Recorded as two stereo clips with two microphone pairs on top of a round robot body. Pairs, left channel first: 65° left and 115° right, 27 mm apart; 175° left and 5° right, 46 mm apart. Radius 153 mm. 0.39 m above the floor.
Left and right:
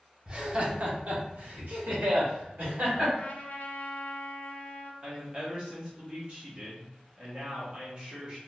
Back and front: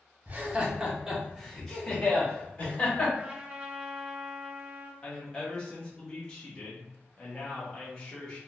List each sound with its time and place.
0.3 s laughter: 50° right, 1.1 m; by 3.1 s 130° right, 2.0 m
3.2 s a trumpet: 60° left, 0.6 m
5.0 s a woman speaking: 160° right, 1.1 m